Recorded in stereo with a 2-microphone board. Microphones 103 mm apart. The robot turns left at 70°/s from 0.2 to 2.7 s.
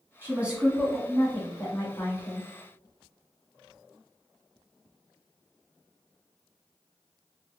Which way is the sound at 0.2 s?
20° right (ahead or behind).